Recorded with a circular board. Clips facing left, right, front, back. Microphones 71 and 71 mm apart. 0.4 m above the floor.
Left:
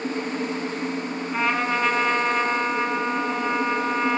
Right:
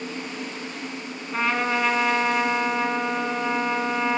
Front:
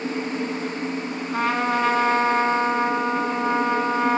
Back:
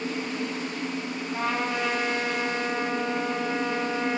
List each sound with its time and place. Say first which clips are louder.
1.3 s a trumpet: even, front 6 dB; straight ahead, 1.2 m